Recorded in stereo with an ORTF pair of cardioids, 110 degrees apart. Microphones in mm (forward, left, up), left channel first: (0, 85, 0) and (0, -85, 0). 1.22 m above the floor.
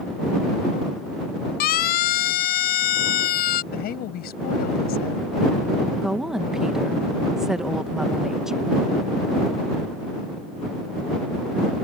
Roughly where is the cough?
I don't hear a cough.